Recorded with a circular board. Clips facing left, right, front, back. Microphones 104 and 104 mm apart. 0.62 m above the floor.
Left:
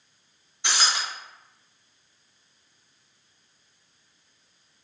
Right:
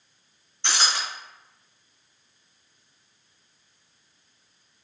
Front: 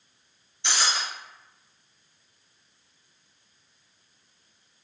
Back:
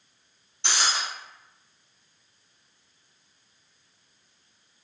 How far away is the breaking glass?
About 1.8 m.